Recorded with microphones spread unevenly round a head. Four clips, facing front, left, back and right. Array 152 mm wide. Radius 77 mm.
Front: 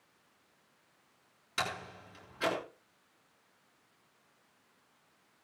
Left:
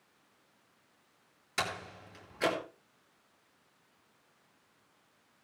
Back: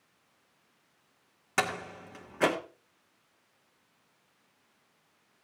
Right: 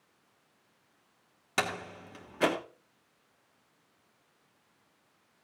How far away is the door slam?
About 3 m.